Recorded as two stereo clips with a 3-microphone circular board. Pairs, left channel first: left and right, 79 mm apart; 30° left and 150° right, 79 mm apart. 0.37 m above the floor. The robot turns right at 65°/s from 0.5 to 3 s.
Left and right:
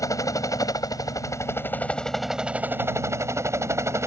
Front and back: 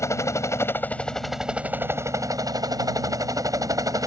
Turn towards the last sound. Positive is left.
turn(degrees=-130)